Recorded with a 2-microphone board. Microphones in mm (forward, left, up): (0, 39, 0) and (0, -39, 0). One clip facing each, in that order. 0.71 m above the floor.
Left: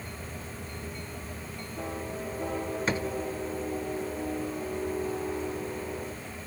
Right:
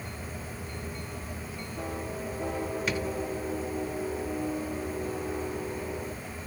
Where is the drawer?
35° left (ahead or behind), 1.4 m.